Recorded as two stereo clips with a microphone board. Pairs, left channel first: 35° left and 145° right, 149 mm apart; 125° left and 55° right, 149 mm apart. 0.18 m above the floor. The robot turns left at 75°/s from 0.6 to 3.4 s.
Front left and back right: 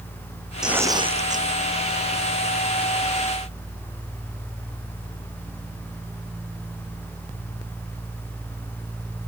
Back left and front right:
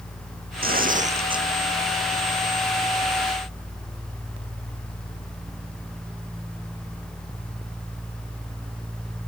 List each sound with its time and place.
0.6 s tearing paper: 60° right; by 1.5 s 125° right